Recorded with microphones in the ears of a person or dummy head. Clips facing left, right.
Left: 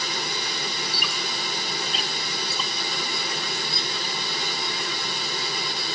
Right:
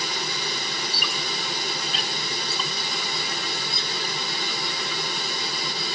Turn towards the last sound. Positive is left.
turn(degrees=5)  # may be behind; listen again after turning